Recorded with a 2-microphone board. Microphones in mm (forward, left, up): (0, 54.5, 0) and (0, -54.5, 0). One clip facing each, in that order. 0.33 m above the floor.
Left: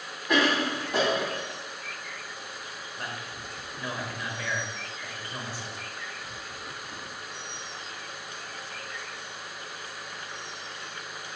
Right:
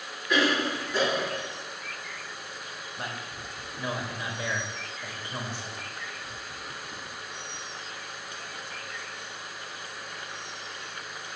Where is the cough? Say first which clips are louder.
Left 1 dB; 60° left (ahead or behind), 2 m.